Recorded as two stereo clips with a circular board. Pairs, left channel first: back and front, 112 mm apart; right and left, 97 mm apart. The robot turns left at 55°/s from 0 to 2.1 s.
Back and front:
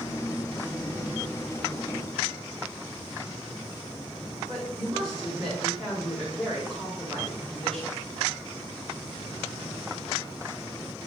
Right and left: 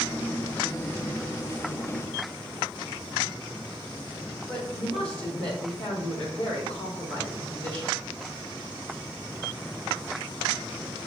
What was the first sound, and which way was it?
A woman speaking, 95° right.